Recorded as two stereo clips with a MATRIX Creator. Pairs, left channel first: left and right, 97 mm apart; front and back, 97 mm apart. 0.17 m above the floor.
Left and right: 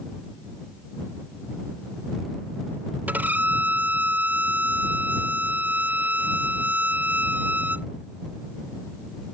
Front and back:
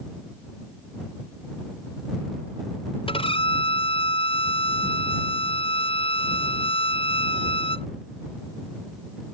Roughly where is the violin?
Ahead.